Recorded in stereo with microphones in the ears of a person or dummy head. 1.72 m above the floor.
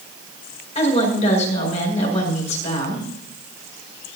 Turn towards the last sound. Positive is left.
turn(degrees=35)  # may be behind; listen again after turning